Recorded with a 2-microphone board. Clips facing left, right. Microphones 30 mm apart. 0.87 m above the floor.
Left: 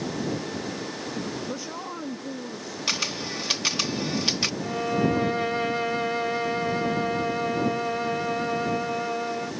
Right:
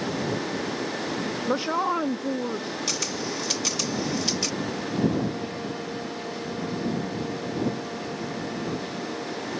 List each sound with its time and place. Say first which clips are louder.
1.5 s a woman speaking: right 9 dB; 55° right (ahead or behind); by 2.8 s 50° right (ahead or behind)
2.9 s a camera shutter: left 5 dB; 30° left (ahead or behind)
4.6 s a violin: left 3 dB; 75° left (ahead or behind)